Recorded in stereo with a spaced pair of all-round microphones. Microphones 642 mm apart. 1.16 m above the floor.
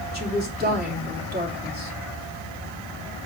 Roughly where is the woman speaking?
Centre.